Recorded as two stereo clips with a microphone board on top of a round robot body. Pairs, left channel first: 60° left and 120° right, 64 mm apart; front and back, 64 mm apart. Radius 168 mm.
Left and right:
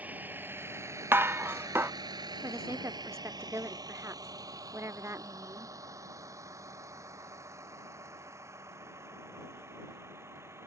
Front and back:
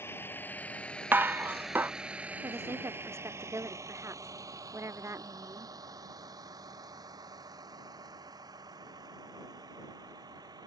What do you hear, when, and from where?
0.0 s a vehicle: 55° right; by 10.7 s 170° right
1.1 s dishes clattering: 140° right
2.4 s a woman speaking: 150° right